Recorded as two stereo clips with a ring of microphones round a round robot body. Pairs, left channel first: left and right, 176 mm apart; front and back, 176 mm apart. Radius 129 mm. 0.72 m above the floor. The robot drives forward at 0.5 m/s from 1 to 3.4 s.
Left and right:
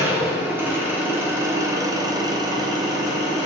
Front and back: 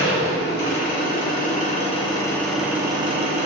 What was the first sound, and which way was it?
An engine running, 15° right.